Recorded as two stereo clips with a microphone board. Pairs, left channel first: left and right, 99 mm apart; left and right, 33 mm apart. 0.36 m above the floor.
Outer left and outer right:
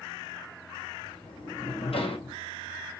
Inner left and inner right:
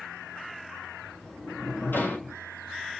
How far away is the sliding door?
About 1.9 m.